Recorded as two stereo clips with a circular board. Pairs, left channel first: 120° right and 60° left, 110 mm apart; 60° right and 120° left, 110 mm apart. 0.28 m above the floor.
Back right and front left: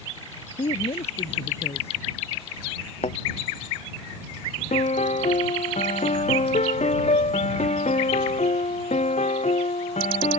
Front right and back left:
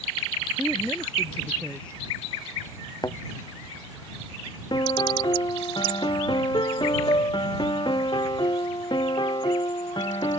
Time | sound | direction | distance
0.6 | a woman speaking | 140° right | ?
3.0 | a thud | 115° right | ?
4.7 | a piano | 110° right | ?